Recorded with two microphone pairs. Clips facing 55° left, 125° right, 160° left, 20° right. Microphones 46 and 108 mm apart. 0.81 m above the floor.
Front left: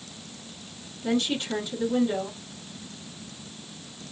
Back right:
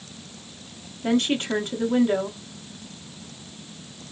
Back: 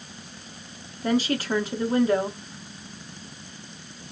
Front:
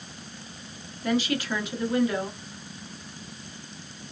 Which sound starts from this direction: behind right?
A woman speaking, at 1.0 s.